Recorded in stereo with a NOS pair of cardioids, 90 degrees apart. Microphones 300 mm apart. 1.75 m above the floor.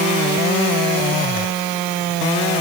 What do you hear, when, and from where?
Only background noise.